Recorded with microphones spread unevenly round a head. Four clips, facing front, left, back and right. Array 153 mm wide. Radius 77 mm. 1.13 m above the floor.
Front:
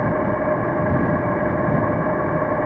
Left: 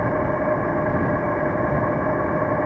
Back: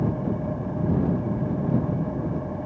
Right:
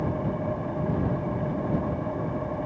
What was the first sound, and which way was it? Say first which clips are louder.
An engine running: left 7 dB, front 7 dB; 35° left.